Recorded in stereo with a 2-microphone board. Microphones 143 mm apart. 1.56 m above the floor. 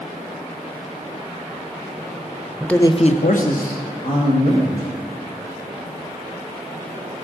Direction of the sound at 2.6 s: Centre (ahead or behind).